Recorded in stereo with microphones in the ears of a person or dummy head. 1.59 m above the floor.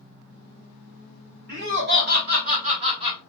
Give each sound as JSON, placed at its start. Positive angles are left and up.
{"t": 1.5, "sound": "laughter", "side_deg": -60, "distance_m": 1.4}